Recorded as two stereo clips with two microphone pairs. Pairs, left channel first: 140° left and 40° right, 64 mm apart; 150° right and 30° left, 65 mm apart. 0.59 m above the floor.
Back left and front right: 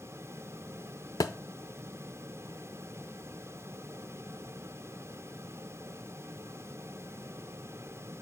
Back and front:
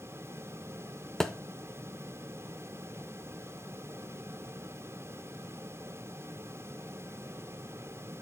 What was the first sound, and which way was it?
A thud, 130° left.